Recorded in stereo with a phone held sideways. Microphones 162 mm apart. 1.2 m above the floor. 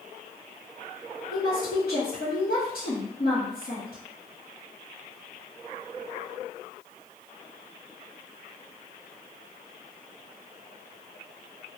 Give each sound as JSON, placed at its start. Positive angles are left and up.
{"t": 1.3, "sound": "a woman speaking", "side_deg": 60, "distance_m": 1.0}